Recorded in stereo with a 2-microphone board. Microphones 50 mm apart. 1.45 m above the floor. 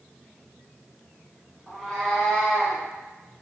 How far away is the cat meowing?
About 0.9 m.